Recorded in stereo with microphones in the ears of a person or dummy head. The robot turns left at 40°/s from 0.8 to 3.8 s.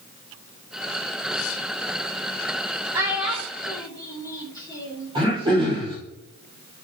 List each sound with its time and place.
2.9 s a child speaking: 20° right (ahead or behind), 1.9 m; by 5.1 s 15° left (ahead or behind), 1.9 m
5.2 s throat clearing: 25° right (ahead or behind), 4 m